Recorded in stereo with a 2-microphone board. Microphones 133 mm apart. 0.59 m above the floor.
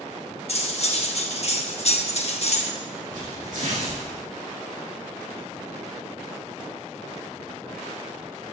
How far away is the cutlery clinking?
About 0.9 m.